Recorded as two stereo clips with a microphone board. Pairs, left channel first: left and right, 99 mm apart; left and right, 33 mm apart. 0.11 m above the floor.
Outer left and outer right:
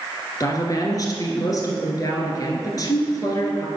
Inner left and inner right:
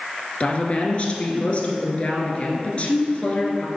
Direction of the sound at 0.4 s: 40° left (ahead or behind).